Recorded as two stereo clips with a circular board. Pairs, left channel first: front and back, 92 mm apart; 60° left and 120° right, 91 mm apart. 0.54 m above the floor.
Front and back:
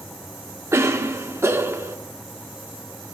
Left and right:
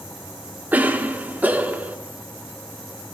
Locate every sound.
0.7 s a cough: 170° right, 1.3 m